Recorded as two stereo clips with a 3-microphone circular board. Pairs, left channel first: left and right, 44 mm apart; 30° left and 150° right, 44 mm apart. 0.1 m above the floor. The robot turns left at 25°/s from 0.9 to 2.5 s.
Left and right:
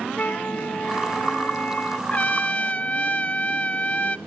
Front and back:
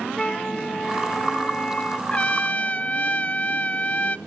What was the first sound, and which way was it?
A flute, 95° left.